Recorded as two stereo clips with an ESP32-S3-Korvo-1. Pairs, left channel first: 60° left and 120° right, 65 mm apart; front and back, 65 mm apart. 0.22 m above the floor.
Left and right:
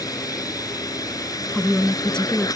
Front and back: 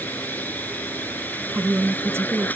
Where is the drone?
60° left.